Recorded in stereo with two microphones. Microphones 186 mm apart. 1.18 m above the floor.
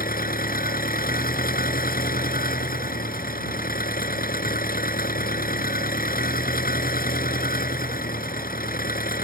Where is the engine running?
50° left (ahead or behind).